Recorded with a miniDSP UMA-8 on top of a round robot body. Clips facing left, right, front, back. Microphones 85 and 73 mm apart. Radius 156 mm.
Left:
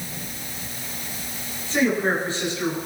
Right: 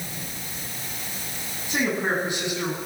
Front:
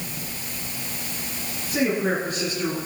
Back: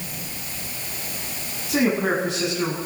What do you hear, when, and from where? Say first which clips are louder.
1.7 s a man speaking: left 3 dB, back 2 dB; 165° right, 8.5 m